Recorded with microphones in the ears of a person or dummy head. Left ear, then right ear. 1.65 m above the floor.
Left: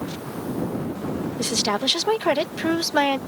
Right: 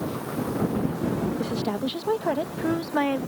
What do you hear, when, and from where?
1.4 s a woman speaking: 55° left (ahead or behind); by 3.2 s 85° left